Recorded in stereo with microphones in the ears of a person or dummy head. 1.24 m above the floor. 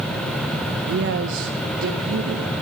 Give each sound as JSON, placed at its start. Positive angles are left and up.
{"t": 0.9, "sound": "a man speaking", "side_deg": -50, "distance_m": 0.6}